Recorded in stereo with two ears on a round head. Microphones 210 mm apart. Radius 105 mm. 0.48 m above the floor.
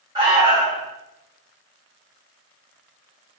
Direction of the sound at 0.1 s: 15° right (ahead or behind).